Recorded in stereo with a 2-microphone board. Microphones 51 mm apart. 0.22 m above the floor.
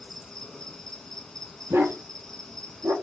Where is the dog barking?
65° right (ahead or behind), 1.5 m.